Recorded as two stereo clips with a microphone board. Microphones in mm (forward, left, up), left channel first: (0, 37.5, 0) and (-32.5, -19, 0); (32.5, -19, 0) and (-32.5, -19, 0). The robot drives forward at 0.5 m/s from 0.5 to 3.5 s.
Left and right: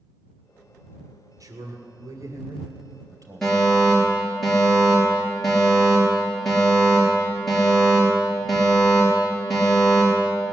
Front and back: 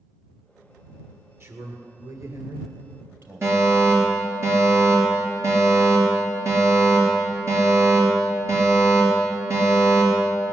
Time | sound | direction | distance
1.4 | a man speaking | 140° right | 2.5 m
3.4 | a fire alarm | 145° left | 5 m